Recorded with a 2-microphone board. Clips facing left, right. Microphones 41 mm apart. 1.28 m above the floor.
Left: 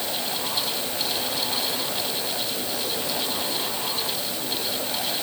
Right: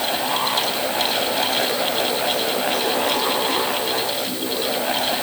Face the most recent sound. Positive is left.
No sound to turn to.